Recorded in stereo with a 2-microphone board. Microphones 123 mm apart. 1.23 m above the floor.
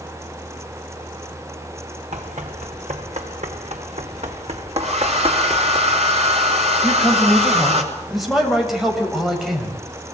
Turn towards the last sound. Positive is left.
turn(degrees=0)  # may be behind; listen again after turning